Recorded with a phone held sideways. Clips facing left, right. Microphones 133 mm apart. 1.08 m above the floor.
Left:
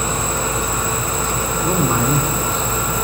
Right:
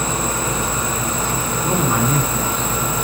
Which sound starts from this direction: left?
A man speaking, at 1.6 s.